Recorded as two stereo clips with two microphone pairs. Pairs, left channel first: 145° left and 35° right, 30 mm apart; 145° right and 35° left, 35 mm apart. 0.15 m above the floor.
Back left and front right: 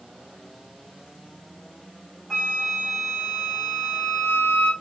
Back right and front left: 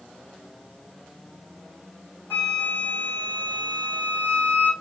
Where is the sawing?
I don't hear sawing.